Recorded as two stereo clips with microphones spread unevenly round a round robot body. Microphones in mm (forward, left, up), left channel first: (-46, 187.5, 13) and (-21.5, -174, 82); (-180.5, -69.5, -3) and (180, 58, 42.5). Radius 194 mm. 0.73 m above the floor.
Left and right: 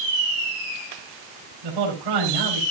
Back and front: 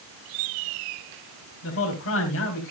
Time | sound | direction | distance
1.6 | a man speaking | 105° right | 3.5 m